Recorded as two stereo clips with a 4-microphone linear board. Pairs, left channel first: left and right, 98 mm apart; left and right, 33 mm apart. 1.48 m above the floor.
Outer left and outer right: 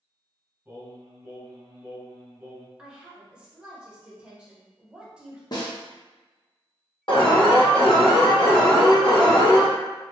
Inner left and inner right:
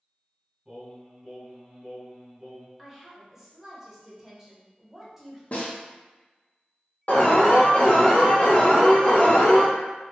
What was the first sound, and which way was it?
Singing, 10° right (ahead or behind).